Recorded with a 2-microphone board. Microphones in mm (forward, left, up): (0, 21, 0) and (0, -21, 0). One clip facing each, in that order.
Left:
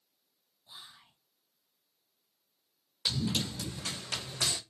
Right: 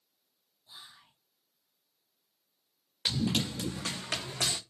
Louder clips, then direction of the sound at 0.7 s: Even; 20° left (ahead or behind).